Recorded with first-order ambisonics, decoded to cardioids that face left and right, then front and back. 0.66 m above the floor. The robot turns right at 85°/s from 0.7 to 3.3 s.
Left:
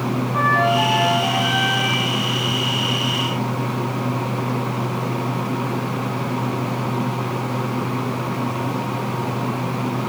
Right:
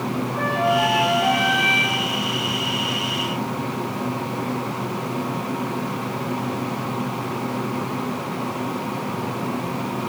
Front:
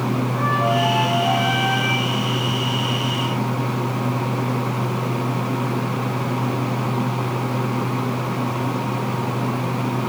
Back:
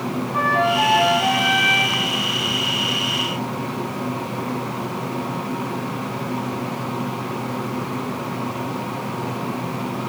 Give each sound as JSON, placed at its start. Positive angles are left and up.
{"t": 0.3, "sound": "a flute", "azimuth_deg": 150, "distance_m": 6.5}